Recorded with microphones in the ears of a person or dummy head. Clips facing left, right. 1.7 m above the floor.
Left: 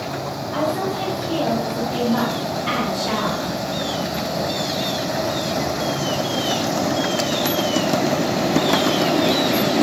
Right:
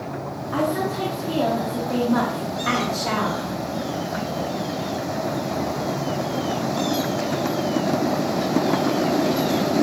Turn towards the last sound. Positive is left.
turn(degrees=-75)  # may be behind; listen again after turning